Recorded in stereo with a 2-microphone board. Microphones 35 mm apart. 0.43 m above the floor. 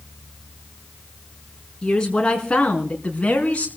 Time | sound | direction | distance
1.8 | a woman speaking | 25° left (ahead or behind) | 4.5 m